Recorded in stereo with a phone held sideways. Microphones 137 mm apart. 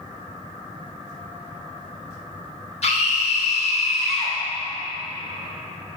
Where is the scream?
50° left (ahead or behind), 1.3 m.